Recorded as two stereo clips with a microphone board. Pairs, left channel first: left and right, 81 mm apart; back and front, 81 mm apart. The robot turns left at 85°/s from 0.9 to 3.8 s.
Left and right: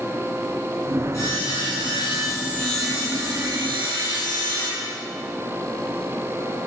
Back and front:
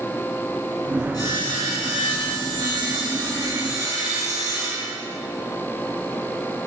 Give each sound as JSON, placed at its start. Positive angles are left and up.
{"t": 1.1, "sound": "sawing", "azimuth_deg": 145, "distance_m": 7.5}